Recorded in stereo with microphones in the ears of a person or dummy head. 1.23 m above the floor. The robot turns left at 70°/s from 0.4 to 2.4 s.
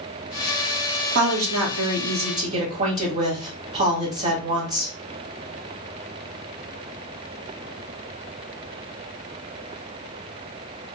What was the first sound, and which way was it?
A woman speaking, 60° right.